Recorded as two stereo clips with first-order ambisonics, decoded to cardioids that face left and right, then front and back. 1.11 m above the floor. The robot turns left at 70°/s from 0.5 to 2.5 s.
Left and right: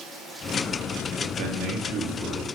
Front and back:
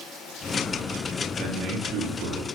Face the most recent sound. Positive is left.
turn(degrees=165)